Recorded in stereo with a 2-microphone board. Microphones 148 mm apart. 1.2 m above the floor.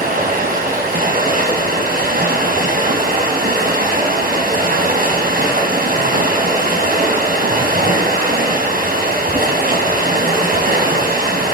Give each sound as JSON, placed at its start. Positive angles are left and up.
{"t": 0.0, "sound": "running water", "side_deg": -80, "distance_m": 4.5}